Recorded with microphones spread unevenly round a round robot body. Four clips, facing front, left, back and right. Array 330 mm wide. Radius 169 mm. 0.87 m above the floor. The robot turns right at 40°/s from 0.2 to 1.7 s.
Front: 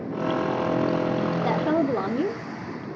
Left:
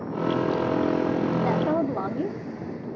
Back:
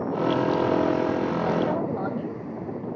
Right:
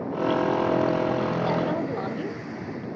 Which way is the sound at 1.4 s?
10° left.